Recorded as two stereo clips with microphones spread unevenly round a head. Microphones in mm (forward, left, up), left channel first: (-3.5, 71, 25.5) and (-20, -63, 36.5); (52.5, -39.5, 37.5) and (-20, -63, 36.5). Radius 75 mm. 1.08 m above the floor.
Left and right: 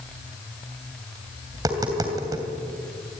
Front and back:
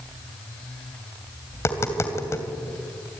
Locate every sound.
1.5 s tapping: 35° right, 3 m